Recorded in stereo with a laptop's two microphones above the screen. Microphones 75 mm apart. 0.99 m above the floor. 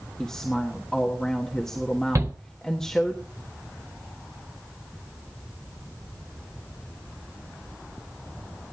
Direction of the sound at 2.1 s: 45° right (ahead or behind).